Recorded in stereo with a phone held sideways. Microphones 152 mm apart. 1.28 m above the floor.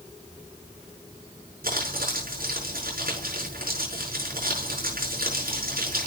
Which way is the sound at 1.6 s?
75° right (ahead or behind).